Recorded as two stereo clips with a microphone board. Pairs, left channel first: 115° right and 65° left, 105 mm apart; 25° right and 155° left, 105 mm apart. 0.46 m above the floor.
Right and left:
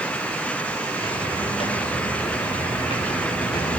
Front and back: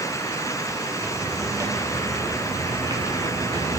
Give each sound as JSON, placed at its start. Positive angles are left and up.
{"t": 0.9, "sound": "footsteps", "azimuth_deg": -140, "distance_m": 8.5}